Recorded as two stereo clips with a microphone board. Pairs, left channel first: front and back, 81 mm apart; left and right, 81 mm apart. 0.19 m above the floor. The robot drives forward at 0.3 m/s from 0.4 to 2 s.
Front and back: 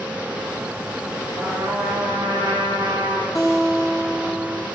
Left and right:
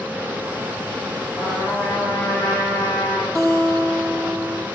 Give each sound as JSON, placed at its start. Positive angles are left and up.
{"t": 1.4, "sound": "a trumpet", "azimuth_deg": 150, "distance_m": 10.0}
{"t": 3.4, "sound": "a guitar", "azimuth_deg": -130, "distance_m": 4.0}